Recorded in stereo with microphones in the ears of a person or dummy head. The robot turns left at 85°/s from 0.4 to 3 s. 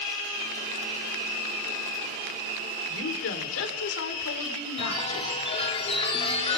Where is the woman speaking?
85° left, 3.5 m; by 5.4 s 80° left, 3.5 m.